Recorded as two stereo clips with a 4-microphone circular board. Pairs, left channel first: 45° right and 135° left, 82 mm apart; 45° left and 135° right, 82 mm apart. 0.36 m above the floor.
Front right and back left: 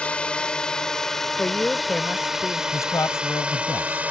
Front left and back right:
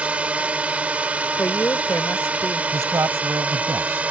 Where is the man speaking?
90° right.